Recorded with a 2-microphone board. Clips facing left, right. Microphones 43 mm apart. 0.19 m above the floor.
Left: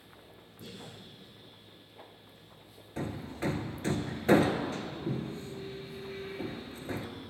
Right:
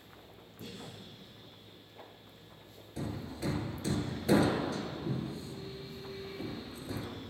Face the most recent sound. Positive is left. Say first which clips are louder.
# left 3 dB
turn(degrees=40)  # may be behind; listen again after turning